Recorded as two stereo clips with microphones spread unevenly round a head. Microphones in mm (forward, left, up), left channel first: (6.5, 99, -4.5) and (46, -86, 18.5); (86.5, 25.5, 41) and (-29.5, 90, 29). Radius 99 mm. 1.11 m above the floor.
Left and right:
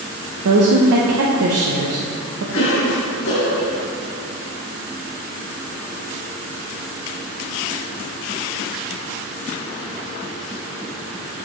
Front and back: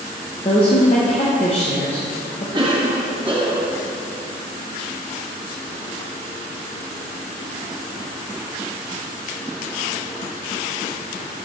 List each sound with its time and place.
0.5 s a woman speaking: 85° right, 0.8 m
2.5 s a cough: 105° left, 2.5 m